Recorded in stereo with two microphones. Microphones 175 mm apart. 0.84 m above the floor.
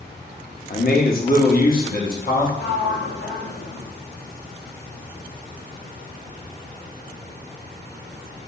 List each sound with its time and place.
0.7 s a man speaking: 55° left (ahead or behind), 0.9 m; by 2.5 s 50° left (ahead or behind), 1.6 m
2.6 s a sliding door: 85° left, 0.7 m